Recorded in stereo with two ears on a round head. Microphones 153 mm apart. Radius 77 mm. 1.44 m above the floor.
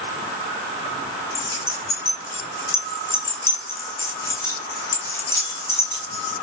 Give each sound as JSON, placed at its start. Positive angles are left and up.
{"t": 1.4, "sound": "keys jangling", "side_deg": 15, "distance_m": 2.5}